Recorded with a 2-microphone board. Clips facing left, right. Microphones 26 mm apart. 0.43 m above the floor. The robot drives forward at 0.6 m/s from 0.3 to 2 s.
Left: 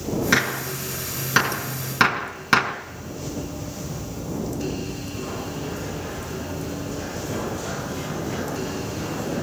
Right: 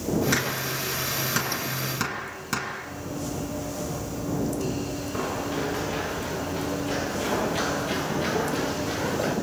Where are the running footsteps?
60° right (ahead or behind), 8.5 m; by 9.3 s 70° right (ahead or behind), 12 m.